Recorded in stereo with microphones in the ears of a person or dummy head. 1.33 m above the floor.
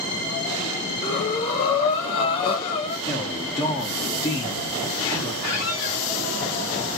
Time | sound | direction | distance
1.0 | breathing | 20° left (ahead or behind) | 0.6 m
3.1 | a man speaking | 25° left (ahead or behind) | 0.7 m
5.4 | a squeak | 50° left (ahead or behind) | 1.8 m